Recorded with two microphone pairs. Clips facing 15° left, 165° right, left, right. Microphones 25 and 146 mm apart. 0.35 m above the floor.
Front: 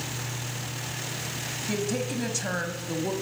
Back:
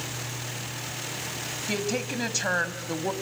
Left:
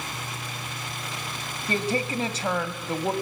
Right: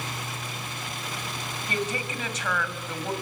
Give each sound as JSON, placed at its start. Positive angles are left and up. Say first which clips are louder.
{"t": 1.7, "sound": "a woman speaking", "louder": "even, left 5 dB", "azimuth_deg": 140, "distance_m": 1.8}